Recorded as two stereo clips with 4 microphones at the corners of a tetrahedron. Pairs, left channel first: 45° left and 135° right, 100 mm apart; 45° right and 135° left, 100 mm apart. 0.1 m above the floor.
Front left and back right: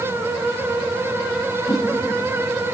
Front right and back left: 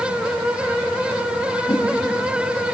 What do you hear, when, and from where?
1.7 s a whoosh: 5° left, 10 m